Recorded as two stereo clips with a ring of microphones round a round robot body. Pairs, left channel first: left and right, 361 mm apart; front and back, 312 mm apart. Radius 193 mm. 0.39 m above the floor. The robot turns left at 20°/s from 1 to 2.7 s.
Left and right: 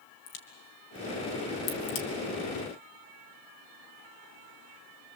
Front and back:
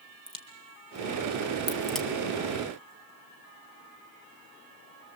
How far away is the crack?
About 2.5 m.